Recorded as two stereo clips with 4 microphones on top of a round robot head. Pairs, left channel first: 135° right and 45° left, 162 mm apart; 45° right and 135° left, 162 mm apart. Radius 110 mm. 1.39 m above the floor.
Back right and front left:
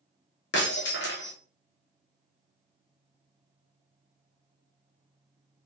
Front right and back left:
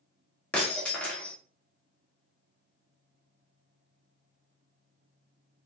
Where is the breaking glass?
125° right, 0.6 m.